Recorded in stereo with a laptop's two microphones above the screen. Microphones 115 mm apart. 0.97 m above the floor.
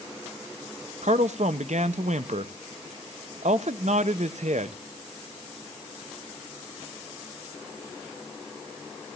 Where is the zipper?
No zipper in this recording.